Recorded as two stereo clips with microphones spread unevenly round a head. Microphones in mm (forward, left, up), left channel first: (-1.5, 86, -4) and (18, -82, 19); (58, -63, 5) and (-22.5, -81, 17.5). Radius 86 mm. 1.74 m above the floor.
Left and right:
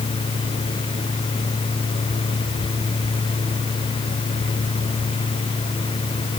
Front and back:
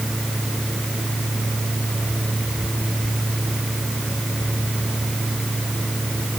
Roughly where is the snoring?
I don't hear snoring.